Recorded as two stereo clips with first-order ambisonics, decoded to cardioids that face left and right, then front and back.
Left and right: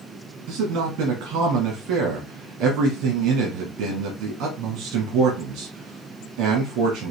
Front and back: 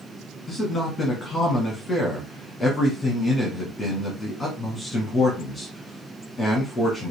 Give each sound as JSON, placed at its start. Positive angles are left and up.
{"t": 0.5, "sound": "a man speaking", "azimuth_deg": -75, "distance_m": 1.0}